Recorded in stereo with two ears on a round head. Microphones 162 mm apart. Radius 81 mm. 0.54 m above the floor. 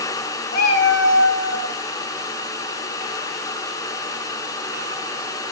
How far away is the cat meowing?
About 1.0 m.